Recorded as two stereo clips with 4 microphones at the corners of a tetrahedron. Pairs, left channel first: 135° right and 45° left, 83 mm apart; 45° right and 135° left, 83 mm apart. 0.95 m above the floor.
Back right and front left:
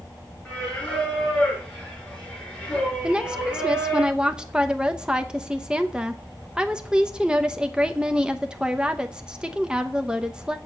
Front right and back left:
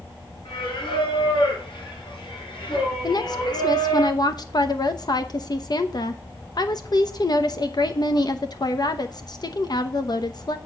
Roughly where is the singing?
Ahead right.